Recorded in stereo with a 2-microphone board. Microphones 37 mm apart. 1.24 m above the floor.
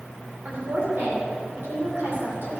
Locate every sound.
0.5 s a woman speaking: 70° right (ahead or behind), 4 m